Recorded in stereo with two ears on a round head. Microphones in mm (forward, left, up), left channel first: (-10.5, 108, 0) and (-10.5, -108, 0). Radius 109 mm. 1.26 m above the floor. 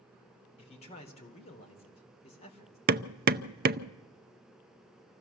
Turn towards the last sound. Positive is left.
turn(degrees=-40)  # may be behind; listen again after turning